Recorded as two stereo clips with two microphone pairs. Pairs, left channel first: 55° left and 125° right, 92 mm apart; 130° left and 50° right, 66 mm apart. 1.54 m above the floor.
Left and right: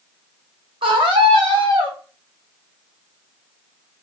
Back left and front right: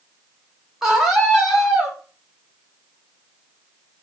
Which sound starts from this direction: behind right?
A scream, at 0.8 s.